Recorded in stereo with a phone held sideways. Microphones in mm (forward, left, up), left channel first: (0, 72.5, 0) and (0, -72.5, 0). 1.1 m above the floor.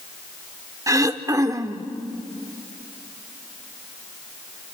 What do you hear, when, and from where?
0.9 s throat clearing: 25° right (ahead or behind), 1.0 m